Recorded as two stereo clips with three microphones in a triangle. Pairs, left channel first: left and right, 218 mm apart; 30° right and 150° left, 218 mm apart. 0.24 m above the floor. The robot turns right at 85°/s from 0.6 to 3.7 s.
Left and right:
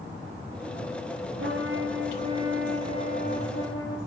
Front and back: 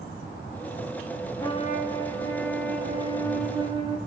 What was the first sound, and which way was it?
A trumpet, 110° right.